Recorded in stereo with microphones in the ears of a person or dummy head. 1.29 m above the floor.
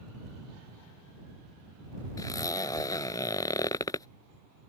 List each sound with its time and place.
2.2 s a zipper: 20° left (ahead or behind)